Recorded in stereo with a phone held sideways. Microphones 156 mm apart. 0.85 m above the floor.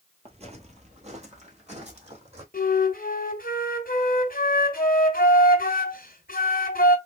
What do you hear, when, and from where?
0.2 s footsteps: 40° right (ahead or behind), 1.0 m; by 2.4 s 45° right (ahead or behind), 2 m
2.5 s a flute: 65° left (ahead or behind), 1.5 m